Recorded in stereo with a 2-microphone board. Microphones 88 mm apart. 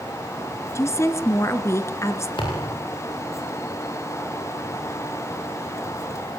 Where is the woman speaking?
30° left (ahead or behind), 1.4 m.